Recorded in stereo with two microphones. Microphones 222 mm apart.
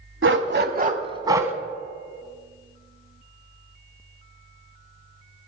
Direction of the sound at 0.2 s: 65° right (ahead or behind).